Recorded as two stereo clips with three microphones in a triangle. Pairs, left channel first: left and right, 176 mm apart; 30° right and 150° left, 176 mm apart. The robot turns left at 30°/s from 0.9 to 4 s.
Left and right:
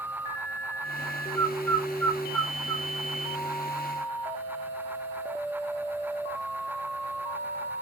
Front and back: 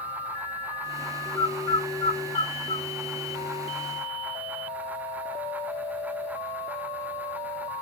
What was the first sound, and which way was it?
A bird, 5° right.